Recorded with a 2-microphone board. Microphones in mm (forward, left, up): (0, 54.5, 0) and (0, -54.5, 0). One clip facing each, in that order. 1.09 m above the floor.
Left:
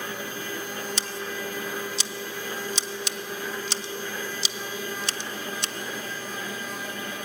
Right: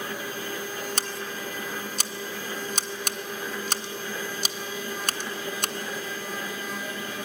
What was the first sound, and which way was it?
Scissors, 50° right (ahead or behind).